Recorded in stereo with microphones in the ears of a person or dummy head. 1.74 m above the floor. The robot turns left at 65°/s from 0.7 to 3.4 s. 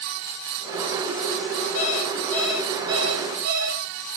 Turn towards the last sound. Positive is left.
turn(degrees=-60)